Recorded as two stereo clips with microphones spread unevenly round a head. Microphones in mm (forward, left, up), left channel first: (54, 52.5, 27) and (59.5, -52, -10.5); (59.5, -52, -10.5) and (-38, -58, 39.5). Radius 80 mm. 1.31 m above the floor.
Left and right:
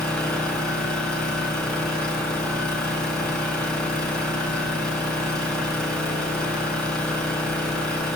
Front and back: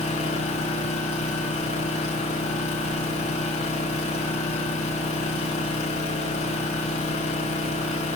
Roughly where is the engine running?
Ahead.